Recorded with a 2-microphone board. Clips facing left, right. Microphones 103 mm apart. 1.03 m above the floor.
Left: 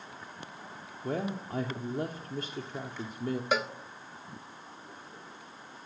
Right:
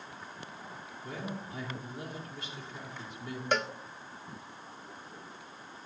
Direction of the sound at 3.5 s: 5° left (ahead or behind).